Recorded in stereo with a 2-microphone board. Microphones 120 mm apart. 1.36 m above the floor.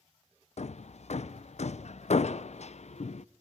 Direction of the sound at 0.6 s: 60° left (ahead or behind).